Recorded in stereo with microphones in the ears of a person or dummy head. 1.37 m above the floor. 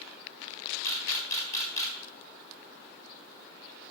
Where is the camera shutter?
25° left (ahead or behind), 3.5 m.